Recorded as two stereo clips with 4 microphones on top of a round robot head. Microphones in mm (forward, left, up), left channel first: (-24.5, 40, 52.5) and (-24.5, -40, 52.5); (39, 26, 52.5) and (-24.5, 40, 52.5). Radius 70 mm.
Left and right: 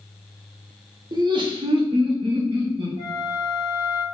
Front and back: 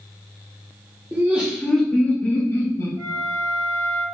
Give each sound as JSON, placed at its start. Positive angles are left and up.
{"t": 1.1, "sound": "laughter", "azimuth_deg": -125, "distance_m": 1.3}
{"t": 3.0, "sound": "a flute", "azimuth_deg": -145, "distance_m": 1.7}